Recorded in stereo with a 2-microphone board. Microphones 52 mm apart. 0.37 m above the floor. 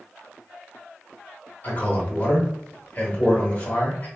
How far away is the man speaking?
About 1.1 m.